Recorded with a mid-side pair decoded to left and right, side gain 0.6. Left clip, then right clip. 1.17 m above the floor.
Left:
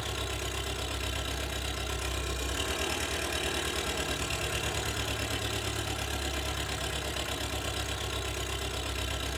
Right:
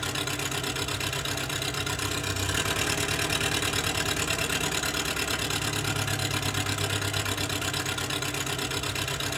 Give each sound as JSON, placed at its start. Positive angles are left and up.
{"t": 0.0, "sound": "an engine running", "azimuth_deg": -45, "distance_m": 7.5}